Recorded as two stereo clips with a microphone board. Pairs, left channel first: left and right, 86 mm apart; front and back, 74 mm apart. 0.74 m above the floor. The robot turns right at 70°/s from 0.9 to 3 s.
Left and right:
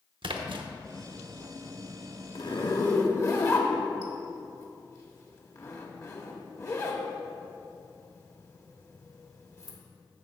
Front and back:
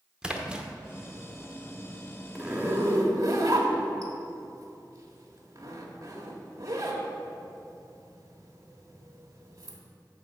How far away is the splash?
About 0.8 m.